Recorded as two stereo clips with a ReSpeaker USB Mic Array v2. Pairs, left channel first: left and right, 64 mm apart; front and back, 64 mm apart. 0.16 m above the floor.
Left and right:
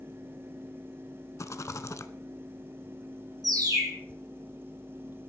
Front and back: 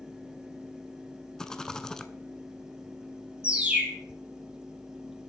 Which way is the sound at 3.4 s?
105° right.